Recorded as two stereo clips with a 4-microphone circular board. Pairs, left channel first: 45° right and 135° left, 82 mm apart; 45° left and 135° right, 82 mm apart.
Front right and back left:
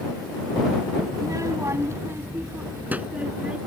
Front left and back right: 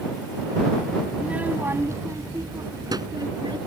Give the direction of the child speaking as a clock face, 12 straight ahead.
7 o'clock.